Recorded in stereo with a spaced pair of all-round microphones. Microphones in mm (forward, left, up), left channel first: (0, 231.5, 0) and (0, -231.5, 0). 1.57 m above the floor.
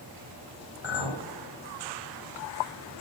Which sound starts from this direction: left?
A clink, at 0.8 s.